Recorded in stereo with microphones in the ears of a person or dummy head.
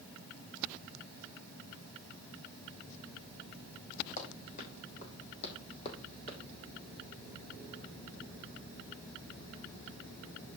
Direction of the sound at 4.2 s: 40° left (ahead or behind).